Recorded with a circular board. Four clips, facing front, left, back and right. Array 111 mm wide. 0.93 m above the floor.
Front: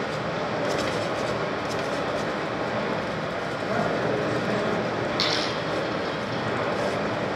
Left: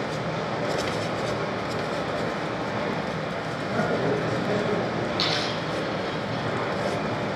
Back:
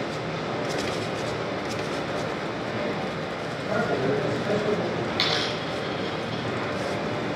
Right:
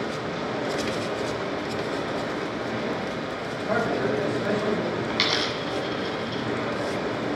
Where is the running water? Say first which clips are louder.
Left 1 dB, front 2 dB; 10° left, 3.5 m.